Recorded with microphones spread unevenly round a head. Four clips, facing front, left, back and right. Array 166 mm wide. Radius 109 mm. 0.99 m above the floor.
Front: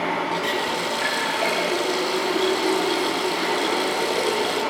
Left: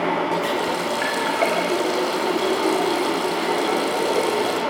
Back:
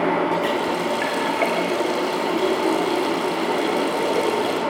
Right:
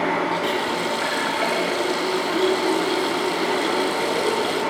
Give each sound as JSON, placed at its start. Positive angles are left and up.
{"t": 0.3, "sound": "a running tap", "azimuth_deg": 160, "distance_m": 3.5}